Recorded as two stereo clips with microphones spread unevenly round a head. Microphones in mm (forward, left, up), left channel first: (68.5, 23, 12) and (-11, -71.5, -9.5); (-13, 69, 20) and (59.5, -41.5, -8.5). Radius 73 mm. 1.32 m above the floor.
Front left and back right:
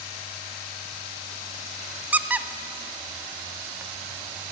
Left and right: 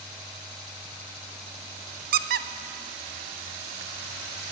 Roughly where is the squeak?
Ahead right.